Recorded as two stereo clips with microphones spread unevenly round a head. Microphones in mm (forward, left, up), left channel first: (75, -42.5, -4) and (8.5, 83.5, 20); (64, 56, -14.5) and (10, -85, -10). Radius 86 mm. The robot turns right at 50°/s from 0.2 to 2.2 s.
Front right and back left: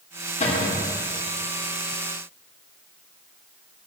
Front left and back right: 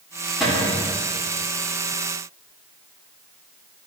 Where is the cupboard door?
20° right, 2.5 m; by 0.9 s 5° left, 2.5 m.